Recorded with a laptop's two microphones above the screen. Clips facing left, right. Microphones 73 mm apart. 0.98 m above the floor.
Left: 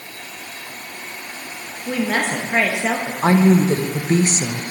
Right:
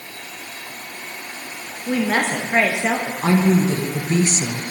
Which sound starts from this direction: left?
A woman speaking, at 3.2 s.